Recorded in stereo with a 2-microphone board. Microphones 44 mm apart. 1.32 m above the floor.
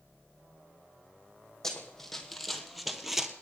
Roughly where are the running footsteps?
Centre.